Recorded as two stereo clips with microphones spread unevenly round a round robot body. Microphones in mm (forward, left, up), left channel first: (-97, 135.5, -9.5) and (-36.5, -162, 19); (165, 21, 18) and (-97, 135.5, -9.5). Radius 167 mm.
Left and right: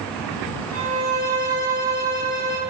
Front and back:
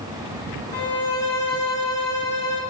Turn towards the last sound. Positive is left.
turn(degrees=180)